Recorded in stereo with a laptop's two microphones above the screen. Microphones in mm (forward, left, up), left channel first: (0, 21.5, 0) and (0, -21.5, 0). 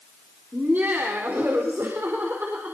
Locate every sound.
0.5 s laughter: 55° right (ahead or behind), 4 m; by 2.8 s 65° right (ahead or behind), 4.5 m